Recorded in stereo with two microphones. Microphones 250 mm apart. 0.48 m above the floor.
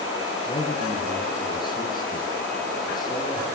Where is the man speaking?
15° left (ahead or behind), 7.5 m.